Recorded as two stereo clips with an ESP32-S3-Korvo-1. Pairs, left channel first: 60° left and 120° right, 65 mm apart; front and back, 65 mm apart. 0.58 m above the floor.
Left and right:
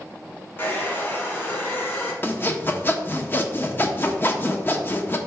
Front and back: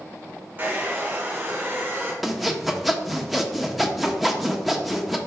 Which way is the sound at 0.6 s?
120° left.